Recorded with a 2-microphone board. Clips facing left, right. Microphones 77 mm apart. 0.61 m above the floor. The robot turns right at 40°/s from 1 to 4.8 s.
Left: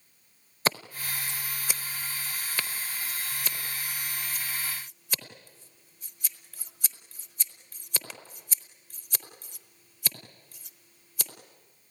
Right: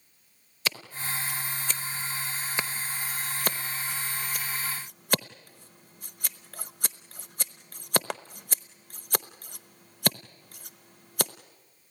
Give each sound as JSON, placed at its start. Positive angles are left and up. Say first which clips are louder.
{"t": 0.7, "sound": "scissors", "louder": "left 4 dB", "side_deg": 40, "distance_m": 0.7}